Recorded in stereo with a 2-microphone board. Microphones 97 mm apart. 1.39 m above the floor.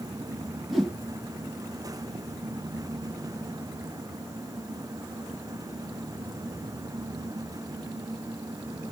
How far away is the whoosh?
About 1.2 m.